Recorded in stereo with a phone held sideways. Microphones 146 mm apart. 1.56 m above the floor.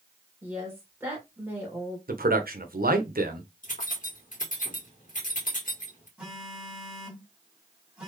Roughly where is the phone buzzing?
Centre.